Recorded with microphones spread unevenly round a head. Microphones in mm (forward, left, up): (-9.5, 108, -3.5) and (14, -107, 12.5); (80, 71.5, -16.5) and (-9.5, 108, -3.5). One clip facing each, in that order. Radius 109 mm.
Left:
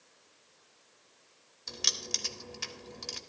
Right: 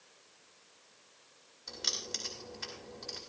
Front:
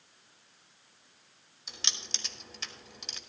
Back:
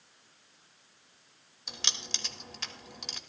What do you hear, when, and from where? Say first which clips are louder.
1.7 s keys jangling: left 1 dB, back 2 dB; 140° left, 1.9 m